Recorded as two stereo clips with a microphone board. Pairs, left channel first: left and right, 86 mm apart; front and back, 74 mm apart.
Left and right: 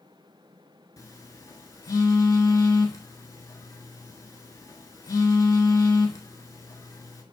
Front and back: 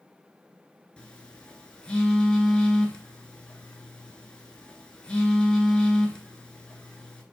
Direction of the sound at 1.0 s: 70° left.